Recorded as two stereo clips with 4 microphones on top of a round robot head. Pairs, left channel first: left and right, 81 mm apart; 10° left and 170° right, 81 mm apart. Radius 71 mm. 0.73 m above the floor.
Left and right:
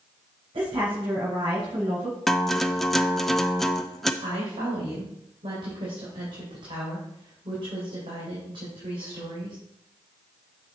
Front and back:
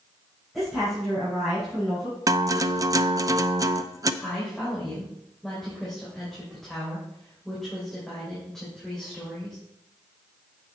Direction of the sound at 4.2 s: 80° right.